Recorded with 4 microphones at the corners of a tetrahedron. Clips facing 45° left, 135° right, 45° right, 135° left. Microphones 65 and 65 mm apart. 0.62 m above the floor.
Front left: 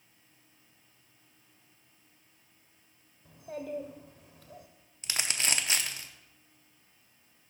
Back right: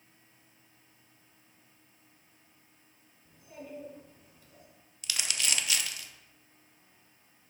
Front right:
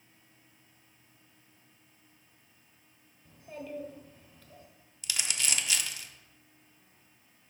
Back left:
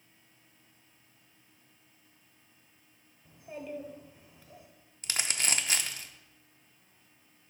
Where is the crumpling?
95° left, 0.7 m.